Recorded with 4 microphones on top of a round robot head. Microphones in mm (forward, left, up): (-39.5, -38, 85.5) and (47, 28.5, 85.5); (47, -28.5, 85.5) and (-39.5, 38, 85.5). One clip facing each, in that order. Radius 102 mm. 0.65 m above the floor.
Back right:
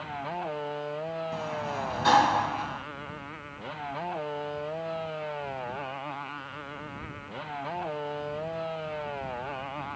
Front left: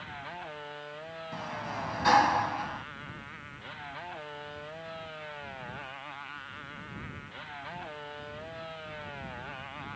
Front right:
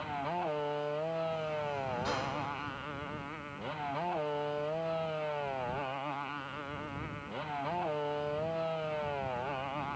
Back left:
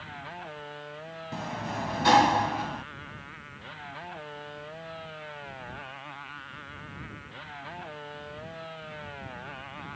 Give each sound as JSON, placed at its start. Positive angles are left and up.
{"t": 0.0, "sound": "a motorcycle", "azimuth_deg": -90}
{"t": 1.3, "sound": "a sliding door", "azimuth_deg": 135}